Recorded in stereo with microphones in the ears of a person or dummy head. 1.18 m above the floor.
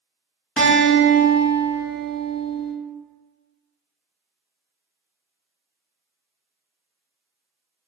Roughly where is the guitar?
Centre.